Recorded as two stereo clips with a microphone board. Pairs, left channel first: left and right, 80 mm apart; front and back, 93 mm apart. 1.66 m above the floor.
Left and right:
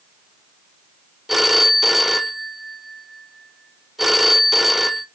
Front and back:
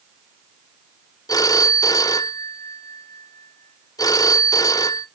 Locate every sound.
1.3 s a phone ringing: 5° right, 0.7 m